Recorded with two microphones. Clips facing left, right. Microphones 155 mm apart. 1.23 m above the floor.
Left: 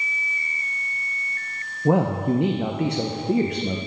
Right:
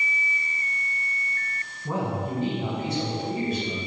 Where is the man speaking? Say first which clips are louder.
Left 9 dB; 70° left (ahead or behind), 0.8 m.